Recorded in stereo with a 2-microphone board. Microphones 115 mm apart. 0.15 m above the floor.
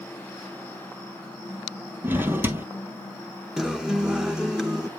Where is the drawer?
20° right (ahead or behind), 1.2 m.